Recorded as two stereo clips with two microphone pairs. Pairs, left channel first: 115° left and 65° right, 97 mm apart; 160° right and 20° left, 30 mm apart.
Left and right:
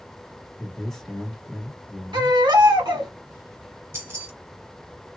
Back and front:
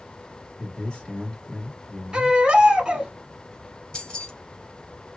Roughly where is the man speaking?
Behind.